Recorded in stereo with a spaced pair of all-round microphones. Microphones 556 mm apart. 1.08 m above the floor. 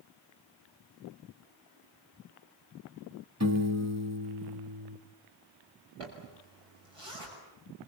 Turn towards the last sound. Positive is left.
turn(degrees=-70)  # may be behind; listen again after turning